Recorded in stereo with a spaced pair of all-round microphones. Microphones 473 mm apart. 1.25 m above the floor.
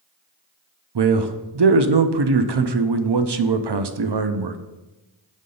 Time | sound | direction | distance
0.9 | a man speaking | 55° right (ahead or behind) | 0.5 m